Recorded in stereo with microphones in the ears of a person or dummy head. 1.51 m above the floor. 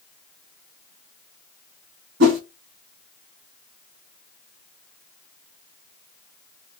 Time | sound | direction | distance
2.2 | a whoosh | 70° right (ahead or behind) | 1.7 m